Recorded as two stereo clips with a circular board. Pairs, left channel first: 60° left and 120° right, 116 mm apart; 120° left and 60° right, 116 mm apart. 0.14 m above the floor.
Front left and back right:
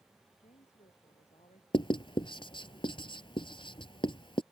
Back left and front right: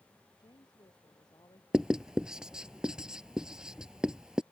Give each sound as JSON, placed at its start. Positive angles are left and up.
{"t": 0.4, "sound": "a woman speaking", "azimuth_deg": 70}
{"t": 1.7, "sound": "writing", "azimuth_deg": 25}